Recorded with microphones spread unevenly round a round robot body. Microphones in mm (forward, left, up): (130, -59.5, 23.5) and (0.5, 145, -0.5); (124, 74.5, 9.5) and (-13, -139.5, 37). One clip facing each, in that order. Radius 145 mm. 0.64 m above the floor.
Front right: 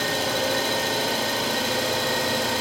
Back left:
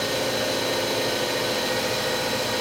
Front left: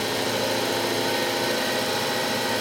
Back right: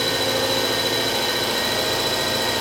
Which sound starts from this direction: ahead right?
An engine running, at 0.0 s.